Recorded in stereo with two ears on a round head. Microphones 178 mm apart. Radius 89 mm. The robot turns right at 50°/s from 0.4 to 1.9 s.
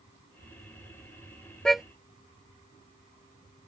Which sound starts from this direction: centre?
A car horn, at 1.6 s.